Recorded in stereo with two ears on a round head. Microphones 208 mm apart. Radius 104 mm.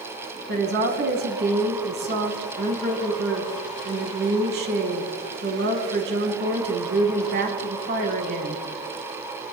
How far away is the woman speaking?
About 3.5 m.